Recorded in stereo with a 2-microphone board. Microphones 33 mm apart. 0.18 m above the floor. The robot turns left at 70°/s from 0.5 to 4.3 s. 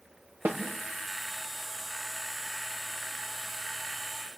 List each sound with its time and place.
0.5 s a snare drum: 70° right (ahead or behind), 4 m; by 0.6 s 65° right (ahead or behind), 4 m